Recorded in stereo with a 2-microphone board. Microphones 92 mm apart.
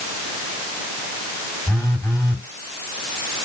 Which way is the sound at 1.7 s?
30° left (ahead or behind).